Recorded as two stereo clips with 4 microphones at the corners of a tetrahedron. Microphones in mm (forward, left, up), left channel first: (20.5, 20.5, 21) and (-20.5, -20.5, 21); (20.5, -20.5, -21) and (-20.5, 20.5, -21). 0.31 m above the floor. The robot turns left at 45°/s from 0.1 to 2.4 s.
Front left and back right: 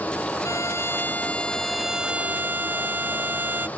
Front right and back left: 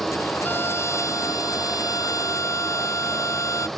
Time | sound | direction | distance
0.4 | a violin | 15° left | ?